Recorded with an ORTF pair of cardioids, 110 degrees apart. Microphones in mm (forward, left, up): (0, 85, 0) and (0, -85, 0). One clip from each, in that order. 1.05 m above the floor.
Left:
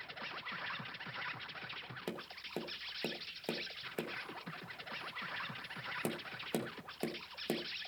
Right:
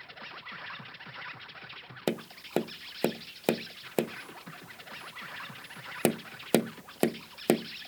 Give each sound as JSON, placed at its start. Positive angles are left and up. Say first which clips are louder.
{"t": 0.0, "sound": "an insect", "louder": "right 1 dB", "azimuth_deg": -5, "distance_m": 0.8}
{"t": 2.1, "sound": "tapping", "louder": "right 15 dB", "azimuth_deg": -60, "distance_m": 0.5}